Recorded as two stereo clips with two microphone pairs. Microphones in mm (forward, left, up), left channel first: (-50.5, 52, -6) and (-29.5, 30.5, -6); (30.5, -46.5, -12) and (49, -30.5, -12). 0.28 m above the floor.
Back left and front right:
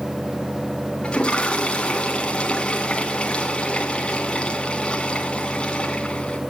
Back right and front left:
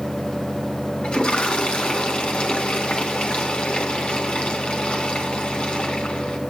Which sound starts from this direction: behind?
A toilet flushing, at 1.0 s.